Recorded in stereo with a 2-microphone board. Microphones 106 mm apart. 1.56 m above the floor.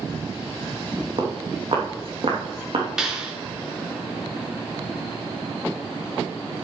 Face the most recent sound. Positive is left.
turn(degrees=-5)  # may be behind; listen again after turning